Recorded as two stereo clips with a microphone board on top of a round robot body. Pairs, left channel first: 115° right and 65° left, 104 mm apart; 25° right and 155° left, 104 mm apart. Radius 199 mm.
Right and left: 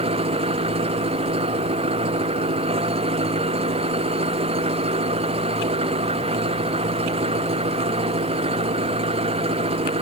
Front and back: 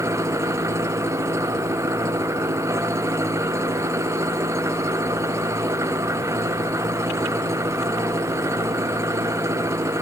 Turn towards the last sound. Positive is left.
turn(degrees=95)